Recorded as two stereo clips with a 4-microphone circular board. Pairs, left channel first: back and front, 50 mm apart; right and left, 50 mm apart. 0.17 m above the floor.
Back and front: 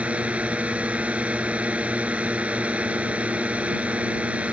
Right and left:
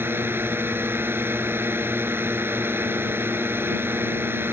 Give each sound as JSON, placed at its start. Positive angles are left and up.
{"t": 0.0, "sound": "a drone", "azimuth_deg": 60}